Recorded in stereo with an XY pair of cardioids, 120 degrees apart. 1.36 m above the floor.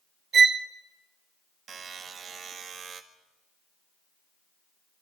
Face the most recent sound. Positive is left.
turn(degrees=-50)